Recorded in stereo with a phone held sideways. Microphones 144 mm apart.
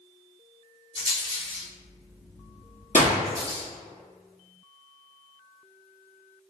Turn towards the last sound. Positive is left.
turn(degrees=60)  # may be behind; listen again after turning